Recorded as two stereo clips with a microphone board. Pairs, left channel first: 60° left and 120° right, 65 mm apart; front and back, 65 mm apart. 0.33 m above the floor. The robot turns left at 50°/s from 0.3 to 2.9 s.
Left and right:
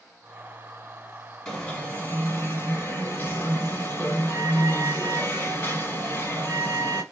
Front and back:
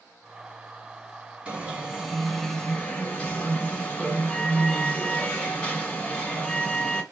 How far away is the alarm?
About 1.8 m.